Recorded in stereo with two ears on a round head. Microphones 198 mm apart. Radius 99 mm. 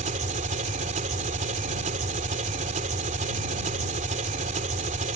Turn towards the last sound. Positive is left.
turn(degrees=-35)  # may be behind; listen again after turning